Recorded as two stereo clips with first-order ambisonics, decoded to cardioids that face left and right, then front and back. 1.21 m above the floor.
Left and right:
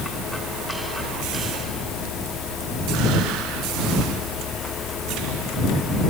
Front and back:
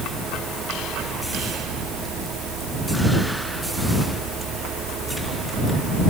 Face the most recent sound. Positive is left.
No sound to turn to.